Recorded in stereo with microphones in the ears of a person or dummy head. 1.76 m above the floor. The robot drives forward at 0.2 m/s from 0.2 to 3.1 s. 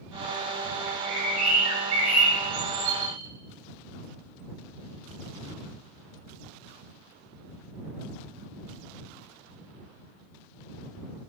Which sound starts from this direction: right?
A bird, at 0.9 s.